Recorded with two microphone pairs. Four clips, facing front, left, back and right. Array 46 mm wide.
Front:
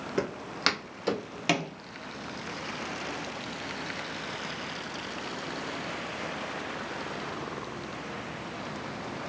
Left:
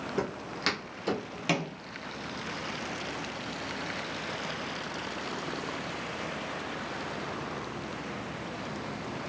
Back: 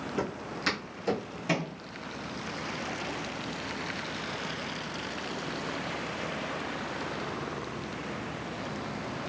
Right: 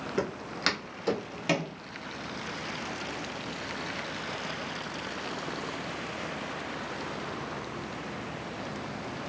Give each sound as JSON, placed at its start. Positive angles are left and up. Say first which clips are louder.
{"t": 0.2, "sound": "footsteps", "louder": "right 3 dB, front 5 dB", "azimuth_deg": -20, "distance_m": 2.0}